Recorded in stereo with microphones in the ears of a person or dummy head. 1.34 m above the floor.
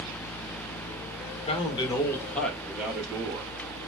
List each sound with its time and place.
1.5 s a man speaking: 35° left (ahead or behind), 2.0 m; by 3.5 s 20° right (ahead or behind), 2.5 m